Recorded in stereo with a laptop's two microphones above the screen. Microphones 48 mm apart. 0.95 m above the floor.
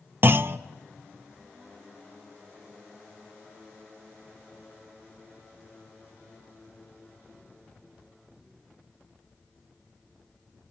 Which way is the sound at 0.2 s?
50° right (ahead or behind).